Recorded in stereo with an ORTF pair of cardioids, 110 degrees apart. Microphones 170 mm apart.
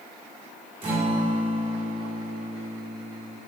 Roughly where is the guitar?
Ahead right.